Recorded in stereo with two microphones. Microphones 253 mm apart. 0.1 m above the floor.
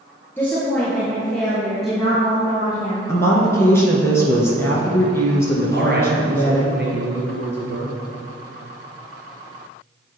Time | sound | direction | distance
0.4 | a woman speaking | 10° left (ahead or behind) | 1.6 m
3.1 | a woman speaking | 10° left (ahead or behind) | 1.1 m
5.7 | a man speaking | 45° right (ahead or behind) | 1.8 m